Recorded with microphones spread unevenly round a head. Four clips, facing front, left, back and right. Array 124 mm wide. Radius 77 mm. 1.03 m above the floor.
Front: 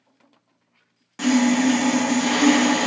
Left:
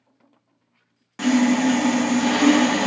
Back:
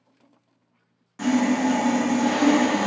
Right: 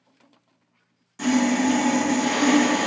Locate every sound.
1.2 s sawing: 40° left, 0.7 m